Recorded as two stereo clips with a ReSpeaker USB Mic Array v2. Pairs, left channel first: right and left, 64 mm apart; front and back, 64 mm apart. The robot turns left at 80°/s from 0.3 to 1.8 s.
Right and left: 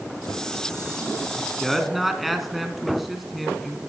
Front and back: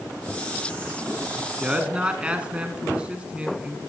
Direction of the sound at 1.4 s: 150° right.